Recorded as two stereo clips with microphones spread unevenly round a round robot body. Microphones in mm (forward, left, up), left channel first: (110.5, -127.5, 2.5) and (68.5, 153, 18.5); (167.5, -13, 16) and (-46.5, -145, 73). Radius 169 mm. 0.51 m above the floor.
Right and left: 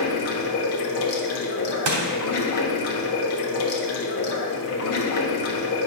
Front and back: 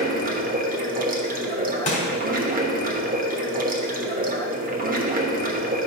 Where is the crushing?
90° left, 1.4 m.